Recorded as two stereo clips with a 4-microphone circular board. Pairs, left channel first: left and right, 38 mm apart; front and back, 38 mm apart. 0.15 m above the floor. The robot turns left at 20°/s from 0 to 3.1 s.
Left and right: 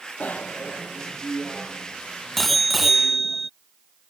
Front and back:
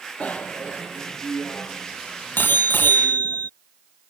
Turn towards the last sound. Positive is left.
turn(degrees=-10)